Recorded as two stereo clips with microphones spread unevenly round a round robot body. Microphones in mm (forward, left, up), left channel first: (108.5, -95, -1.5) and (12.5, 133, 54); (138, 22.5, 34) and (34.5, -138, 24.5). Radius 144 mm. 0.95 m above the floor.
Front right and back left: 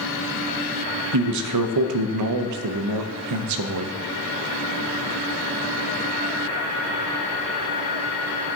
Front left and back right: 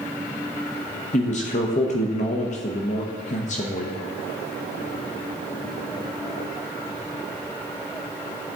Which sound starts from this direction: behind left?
A man speaking, at 1.1 s.